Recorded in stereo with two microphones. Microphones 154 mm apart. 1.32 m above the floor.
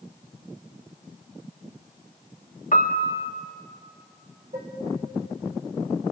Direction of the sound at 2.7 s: 55° left (ahead or behind).